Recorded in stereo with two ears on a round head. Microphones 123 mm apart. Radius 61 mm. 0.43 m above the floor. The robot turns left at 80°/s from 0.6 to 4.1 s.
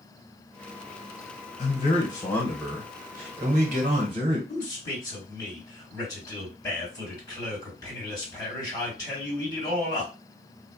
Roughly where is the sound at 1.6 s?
Left.